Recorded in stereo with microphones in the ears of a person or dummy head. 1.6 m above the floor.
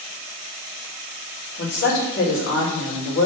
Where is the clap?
I don't hear a clap.